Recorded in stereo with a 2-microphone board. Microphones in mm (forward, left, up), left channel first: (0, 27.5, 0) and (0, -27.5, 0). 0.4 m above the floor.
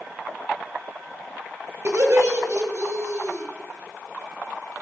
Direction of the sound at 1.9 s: 55° right (ahead or behind).